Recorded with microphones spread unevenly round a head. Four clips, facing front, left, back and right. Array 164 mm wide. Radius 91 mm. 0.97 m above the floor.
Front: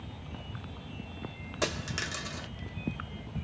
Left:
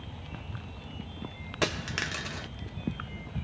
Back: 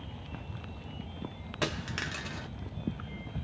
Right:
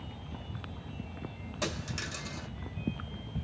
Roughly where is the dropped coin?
Left.